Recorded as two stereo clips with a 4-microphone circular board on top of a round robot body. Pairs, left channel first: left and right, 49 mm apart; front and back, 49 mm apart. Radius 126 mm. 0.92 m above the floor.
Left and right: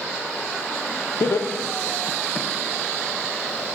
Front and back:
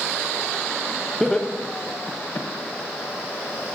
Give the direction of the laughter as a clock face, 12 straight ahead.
9 o'clock.